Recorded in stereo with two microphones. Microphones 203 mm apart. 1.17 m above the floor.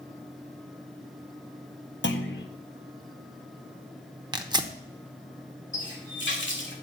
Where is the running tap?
65° left (ahead or behind), 2 m.